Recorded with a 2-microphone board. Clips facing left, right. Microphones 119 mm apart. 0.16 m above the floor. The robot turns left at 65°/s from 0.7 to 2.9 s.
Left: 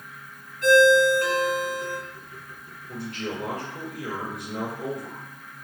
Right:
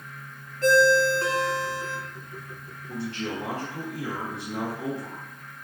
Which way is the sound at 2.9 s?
35° right (ahead or behind).